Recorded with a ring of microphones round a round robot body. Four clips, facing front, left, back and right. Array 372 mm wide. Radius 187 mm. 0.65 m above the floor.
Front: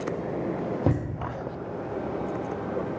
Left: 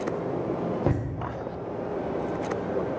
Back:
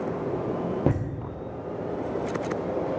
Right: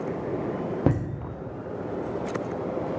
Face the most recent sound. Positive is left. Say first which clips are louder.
# right 4 dB, even
turn(degrees=-95)